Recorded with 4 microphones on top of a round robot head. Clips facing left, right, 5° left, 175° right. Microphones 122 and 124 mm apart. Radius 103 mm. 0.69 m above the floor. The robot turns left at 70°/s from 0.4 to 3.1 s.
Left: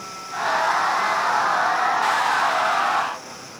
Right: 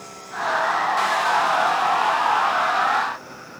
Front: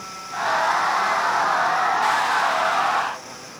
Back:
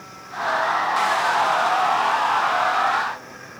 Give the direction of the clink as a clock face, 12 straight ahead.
No clink in this recording.